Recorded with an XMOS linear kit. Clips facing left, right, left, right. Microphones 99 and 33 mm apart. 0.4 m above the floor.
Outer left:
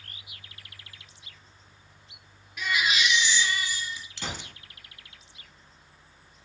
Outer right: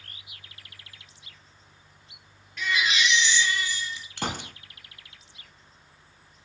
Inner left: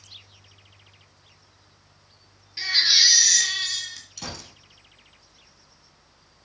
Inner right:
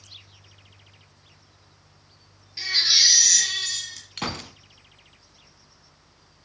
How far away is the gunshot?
About 0.9 m.